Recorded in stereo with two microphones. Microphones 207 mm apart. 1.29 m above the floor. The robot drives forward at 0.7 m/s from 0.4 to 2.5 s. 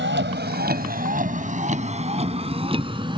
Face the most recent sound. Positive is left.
turn(degrees=-25)  # may be behind; listen again after turning